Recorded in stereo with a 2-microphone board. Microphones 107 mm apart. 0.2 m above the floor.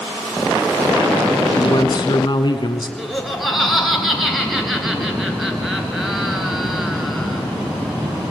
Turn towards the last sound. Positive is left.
turn(degrees=0)  # may be behind; listen again after turning